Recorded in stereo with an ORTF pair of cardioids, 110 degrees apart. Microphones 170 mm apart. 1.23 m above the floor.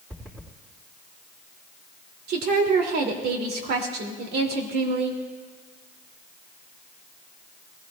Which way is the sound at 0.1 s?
10° right.